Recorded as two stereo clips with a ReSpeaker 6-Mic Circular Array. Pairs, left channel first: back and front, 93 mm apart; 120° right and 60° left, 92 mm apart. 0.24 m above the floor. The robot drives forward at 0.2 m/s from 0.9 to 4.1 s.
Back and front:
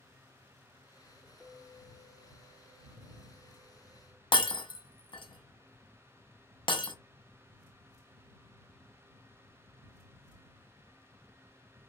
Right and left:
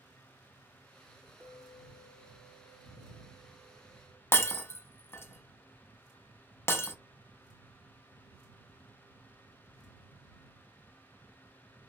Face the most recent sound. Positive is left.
turn(degrees=180)